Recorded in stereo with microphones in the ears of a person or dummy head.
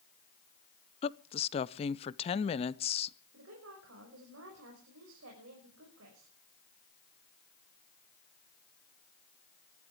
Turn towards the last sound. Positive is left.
turn(degrees=-80)